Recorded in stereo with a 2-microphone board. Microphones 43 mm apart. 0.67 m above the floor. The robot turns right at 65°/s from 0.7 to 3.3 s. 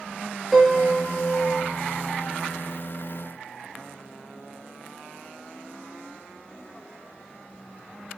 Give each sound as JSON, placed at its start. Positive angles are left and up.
{"t": 0.5, "sound": "a piano", "azimuth_deg": 10, "distance_m": 1.1}